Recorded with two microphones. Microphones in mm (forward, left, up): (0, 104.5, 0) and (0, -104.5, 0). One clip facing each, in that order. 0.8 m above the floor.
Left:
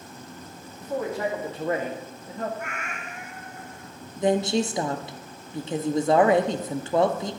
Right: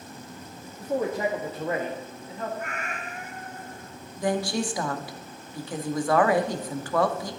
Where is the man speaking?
35° right (ahead or behind), 1.7 m; by 2.5 s 45° left (ahead or behind), 1.6 m.